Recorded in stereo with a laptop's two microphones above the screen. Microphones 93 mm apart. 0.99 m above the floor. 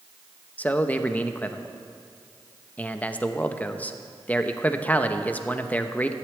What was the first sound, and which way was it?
A man speaking, 15° left (ahead or behind).